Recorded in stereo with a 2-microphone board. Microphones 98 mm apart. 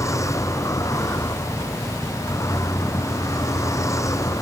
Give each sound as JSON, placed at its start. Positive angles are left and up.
{"t": 0.0, "sound": "a vehicle", "side_deg": 30}